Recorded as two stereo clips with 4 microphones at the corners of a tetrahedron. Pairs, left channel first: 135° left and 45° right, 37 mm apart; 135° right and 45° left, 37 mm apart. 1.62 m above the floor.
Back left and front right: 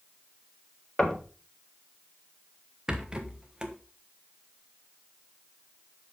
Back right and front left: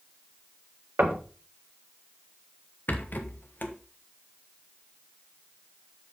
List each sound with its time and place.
1.0 s knocking: 70° left, 1.7 m
2.9 s a rattle: 110° right, 1.2 m